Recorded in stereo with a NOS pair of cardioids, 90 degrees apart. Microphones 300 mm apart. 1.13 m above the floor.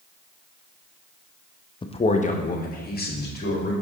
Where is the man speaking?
15° left, 0.7 m; by 3.7 s 35° left, 2.5 m.